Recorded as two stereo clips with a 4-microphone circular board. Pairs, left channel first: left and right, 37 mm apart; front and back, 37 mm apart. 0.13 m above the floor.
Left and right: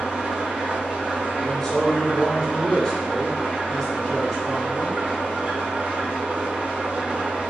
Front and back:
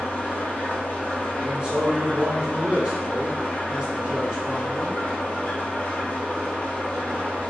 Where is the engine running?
40° right, 2.0 m.